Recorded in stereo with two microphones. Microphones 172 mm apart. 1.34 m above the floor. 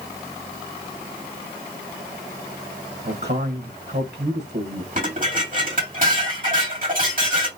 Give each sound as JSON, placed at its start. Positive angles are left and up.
{"t": 3.0, "sound": "a man speaking", "side_deg": -75, "distance_m": 1.1}
{"t": 5.0, "sound": "dishes clattering", "side_deg": -50, "distance_m": 2.5}